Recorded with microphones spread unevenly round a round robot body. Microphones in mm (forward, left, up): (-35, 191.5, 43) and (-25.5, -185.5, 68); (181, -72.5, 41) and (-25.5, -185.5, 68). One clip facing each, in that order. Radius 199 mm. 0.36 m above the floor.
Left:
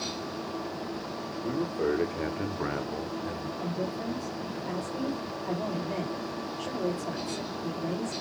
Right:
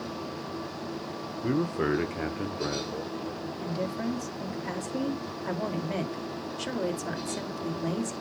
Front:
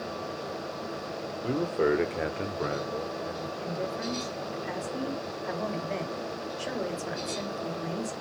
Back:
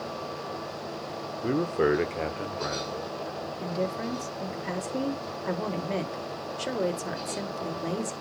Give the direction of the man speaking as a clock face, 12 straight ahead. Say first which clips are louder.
Right 2 dB, back 2 dB; 3 o'clock.